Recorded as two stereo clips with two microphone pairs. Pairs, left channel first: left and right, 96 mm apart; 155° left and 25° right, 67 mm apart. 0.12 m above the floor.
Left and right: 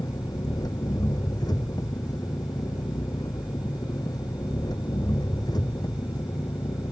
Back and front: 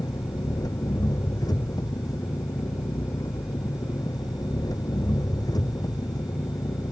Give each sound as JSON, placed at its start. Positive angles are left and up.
{"t": 0.0, "sound": "an engine running", "azimuth_deg": 135}